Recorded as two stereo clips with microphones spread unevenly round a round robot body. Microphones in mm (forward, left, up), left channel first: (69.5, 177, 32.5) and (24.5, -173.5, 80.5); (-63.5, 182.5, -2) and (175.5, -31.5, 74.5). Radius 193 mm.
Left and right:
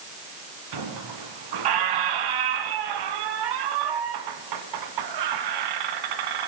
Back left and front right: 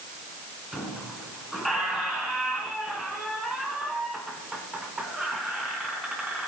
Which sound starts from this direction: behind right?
A squeak, at 0.7 s.